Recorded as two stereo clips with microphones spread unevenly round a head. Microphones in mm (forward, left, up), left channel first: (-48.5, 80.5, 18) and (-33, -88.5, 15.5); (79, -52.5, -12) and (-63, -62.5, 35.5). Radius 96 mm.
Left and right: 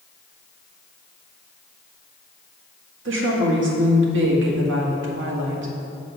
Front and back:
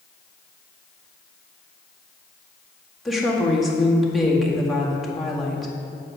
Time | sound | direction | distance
3.0 | a woman speaking | 80° right | 2.0 m